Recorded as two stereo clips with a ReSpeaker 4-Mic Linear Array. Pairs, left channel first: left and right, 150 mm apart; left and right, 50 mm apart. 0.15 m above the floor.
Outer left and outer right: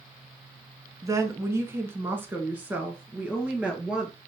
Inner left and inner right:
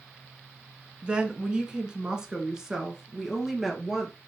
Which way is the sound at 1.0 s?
20° right (ahead or behind).